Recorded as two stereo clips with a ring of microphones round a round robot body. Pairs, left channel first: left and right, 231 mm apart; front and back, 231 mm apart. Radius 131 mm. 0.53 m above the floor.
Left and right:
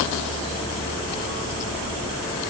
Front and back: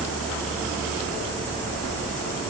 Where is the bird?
I don't hear a bird.